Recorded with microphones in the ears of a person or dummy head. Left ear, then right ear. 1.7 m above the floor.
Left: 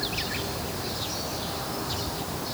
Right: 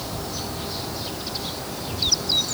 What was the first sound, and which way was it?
Only background noise.